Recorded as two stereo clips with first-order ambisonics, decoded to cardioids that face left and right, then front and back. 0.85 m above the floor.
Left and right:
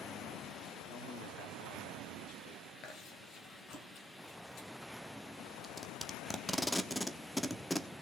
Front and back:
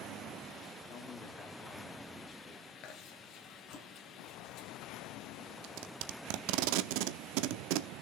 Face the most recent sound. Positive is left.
turn(degrees=175)